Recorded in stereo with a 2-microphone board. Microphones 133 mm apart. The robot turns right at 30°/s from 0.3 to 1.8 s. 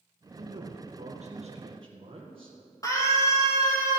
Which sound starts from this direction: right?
A man speaking, at 0.4 s.